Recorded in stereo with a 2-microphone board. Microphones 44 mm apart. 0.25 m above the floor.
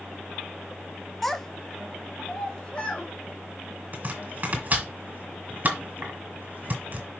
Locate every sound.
1.2 s a child speaking: 5° left (ahead or behind), 0.6 m; by 3.1 s 30° left (ahead or behind), 1.5 m
3.9 s chopping: 35° right (ahead or behind), 1.9 m